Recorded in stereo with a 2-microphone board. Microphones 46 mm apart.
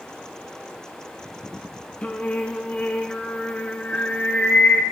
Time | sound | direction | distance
2.0 | singing | 30° left (ahead or behind) | 0.6 m